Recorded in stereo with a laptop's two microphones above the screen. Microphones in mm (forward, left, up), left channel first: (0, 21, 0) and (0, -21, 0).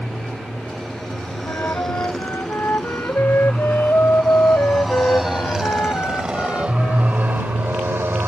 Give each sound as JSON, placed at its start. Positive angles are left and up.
{"t": 0.0, "sound": "a motorcycle", "side_deg": 10}
{"t": 1.5, "sound": "a flute", "side_deg": 65}